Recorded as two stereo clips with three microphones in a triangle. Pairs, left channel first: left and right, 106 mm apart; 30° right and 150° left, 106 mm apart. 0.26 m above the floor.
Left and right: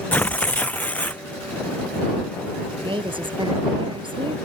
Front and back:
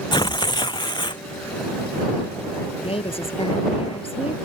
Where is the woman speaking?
55° right.